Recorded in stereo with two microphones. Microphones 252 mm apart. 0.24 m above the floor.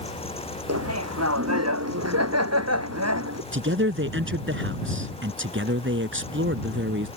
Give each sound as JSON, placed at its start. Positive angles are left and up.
{"t": 0.7, "sound": "laughter", "side_deg": -85}
{"t": 3.5, "sound": "a man speaking", "side_deg": -50}